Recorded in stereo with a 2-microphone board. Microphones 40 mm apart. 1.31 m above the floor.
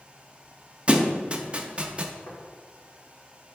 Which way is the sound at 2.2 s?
60° left (ahead or behind).